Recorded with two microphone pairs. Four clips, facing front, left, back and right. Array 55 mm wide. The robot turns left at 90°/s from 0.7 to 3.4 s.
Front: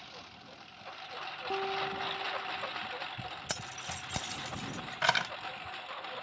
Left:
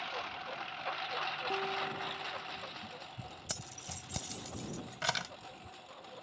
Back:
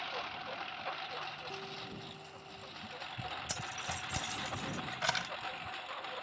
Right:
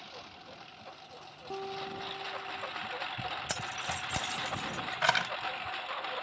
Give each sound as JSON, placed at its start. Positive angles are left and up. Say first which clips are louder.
{"t": 0.0, "sound": "a lawn mower", "louder": "left 8 dB, back 9 dB", "azimuth_deg": 125}
{"t": 1.5, "sound": "a guitar", "louder": "right 2 dB, front 11 dB", "azimuth_deg": 20}
{"t": 3.5, "sound": "keys jangling", "louder": "right 11 dB, even", "azimuth_deg": -50}